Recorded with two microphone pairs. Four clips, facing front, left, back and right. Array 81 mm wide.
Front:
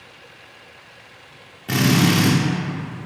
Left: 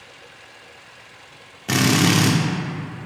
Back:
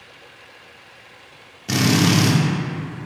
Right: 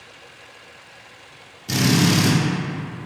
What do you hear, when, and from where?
1.7 s a drill: 80° left, 0.8 m